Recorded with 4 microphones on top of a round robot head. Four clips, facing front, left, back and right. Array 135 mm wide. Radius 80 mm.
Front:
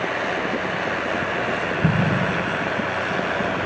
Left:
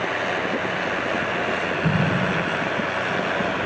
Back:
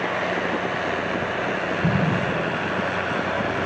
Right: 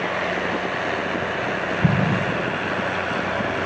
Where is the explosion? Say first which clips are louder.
Right 3 dB, front 1 dB; 60° right, 1.2 m.